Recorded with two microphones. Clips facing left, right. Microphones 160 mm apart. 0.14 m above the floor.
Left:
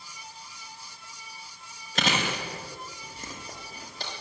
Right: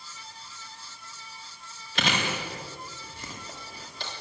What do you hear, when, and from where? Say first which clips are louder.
1.9 s chewing: left 1 dB; 40° left (ahead or behind), 9 m